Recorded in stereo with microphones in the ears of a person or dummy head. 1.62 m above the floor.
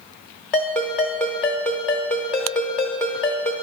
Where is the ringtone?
10° left (ahead or behind), 0.9 m.